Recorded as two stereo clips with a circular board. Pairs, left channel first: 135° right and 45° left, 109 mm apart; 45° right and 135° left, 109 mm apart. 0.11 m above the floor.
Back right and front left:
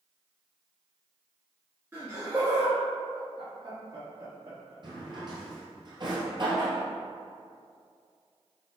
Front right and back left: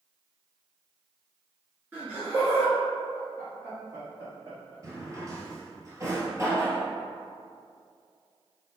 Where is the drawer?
80° left, 1.5 m.